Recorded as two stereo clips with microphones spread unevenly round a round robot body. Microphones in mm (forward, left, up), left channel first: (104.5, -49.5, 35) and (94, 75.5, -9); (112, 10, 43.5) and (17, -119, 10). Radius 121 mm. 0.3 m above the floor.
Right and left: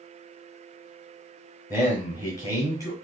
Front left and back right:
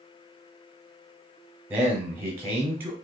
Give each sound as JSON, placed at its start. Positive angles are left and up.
{"t": 1.7, "sound": "a man speaking", "azimuth_deg": -170, "distance_m": 1.0}